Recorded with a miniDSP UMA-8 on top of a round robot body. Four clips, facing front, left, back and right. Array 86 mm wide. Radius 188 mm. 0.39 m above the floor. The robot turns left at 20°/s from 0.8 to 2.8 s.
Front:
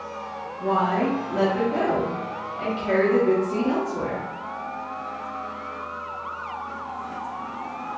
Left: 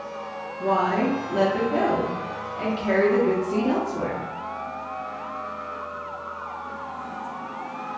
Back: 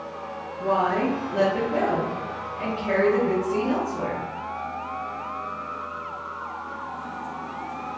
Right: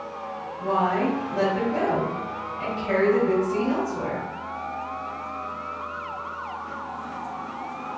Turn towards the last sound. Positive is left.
turn(degrees=80)